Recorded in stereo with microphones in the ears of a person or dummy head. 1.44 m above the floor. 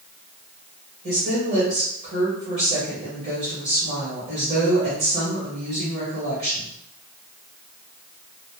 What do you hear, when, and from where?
1.0 s a woman speaking: 40° right (ahead or behind), 1.9 m